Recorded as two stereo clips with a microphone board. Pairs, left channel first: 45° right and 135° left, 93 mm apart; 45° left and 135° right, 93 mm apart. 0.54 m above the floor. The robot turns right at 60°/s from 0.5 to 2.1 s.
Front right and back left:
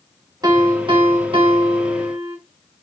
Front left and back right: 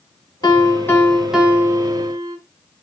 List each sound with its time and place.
0.4 s a piano: 90° left, 0.8 m; by 2.4 s 175° right, 0.8 m